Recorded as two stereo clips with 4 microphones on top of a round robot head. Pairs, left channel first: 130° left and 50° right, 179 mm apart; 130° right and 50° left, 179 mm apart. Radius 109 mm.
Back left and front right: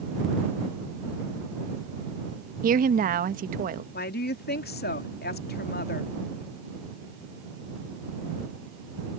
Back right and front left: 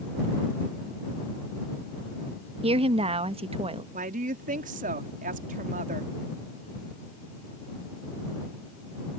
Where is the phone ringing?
No phone ringing in this recording.